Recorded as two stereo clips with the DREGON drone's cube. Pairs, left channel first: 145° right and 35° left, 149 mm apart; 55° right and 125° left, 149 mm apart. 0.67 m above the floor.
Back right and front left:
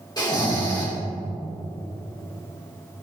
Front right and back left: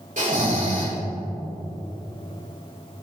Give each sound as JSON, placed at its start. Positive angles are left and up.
{"t": 0.2, "sound": "snoring", "azimuth_deg": 155, "distance_m": 3.0}